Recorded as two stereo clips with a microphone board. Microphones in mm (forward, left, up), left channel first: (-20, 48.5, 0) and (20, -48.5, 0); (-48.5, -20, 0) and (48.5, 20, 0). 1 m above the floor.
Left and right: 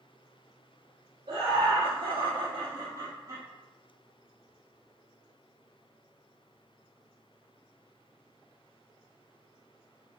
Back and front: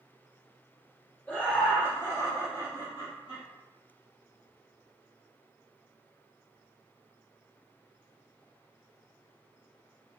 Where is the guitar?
No guitar in this recording.